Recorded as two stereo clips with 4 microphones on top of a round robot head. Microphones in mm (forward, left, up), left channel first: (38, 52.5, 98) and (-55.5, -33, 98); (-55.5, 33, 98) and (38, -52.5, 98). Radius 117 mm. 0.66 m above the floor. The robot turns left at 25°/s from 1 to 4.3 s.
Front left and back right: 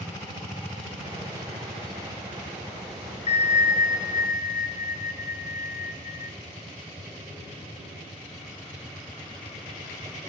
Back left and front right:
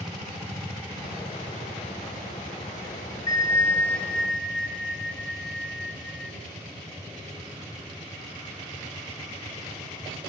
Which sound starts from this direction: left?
A bell, at 3.3 s.